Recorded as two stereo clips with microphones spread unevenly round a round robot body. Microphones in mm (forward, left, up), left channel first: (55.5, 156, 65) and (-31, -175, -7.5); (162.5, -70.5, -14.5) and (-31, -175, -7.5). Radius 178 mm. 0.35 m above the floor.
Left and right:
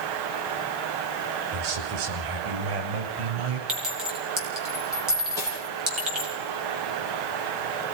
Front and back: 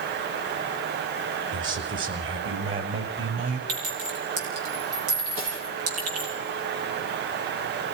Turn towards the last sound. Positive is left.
turn(degrees=155)